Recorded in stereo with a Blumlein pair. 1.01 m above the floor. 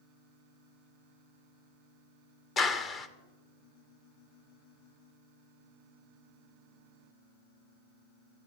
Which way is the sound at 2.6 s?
20° left.